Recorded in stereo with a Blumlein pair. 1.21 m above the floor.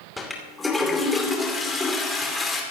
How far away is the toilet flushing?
About 2.5 m.